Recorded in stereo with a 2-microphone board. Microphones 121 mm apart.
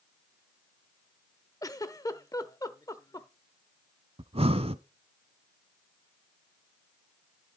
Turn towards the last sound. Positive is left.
turn(degrees=-55)  # may be behind; listen again after turning